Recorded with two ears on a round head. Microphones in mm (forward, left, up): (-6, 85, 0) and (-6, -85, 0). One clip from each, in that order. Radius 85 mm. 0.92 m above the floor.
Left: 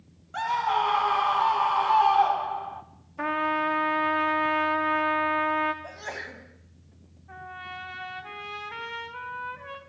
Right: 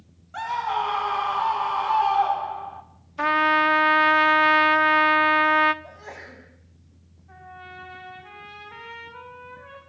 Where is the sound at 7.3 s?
30° left (ahead or behind), 5 m.